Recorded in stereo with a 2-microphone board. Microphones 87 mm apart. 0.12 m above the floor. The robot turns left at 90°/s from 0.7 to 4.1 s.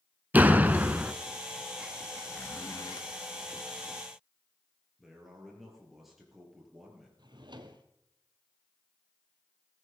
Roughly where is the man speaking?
Centre.